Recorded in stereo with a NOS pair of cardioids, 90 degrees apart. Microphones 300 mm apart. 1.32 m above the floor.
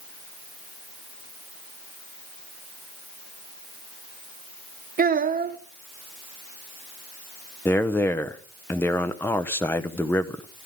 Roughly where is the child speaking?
Ahead right.